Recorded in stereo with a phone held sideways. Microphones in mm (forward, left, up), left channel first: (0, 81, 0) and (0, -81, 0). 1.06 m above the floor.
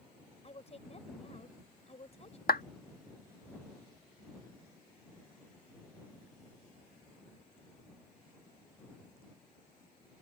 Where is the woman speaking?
40° left (ahead or behind).